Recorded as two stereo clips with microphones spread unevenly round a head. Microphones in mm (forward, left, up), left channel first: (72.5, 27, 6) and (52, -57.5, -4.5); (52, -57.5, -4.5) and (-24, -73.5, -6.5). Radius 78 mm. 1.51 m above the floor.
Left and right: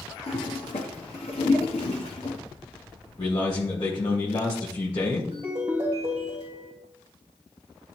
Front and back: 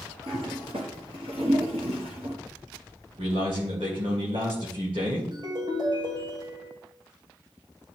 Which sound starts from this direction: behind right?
A ringtone, at 5.3 s.